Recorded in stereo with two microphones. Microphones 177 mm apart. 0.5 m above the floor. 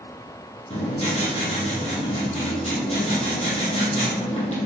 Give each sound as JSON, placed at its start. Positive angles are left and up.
{"t": 0.7, "sound": "writing", "side_deg": 40, "distance_m": 4.5}